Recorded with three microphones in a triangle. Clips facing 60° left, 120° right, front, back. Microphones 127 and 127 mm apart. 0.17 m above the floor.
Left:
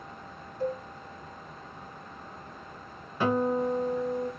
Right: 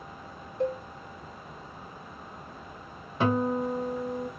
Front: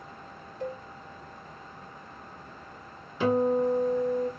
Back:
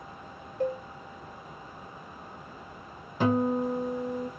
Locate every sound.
0.6 s a cowbell: 140° right, 1.4 m
3.2 s a guitar: 175° right, 2 m